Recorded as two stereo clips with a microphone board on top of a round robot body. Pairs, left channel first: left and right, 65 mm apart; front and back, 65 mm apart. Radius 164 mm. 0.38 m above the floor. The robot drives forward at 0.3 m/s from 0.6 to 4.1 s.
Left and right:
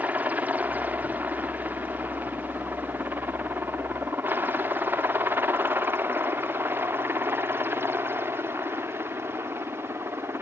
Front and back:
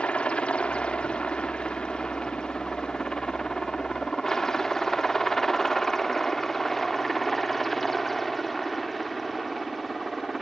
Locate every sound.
0.0 s a helicopter: 55° right; by 10.4 s 90° right